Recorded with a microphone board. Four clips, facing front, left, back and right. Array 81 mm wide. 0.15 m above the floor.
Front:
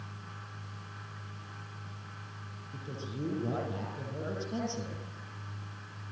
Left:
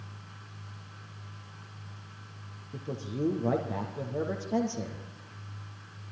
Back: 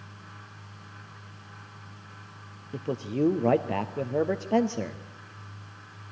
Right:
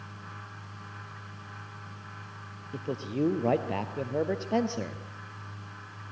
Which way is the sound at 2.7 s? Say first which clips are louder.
Right 4 dB, back 12 dB; 155° right.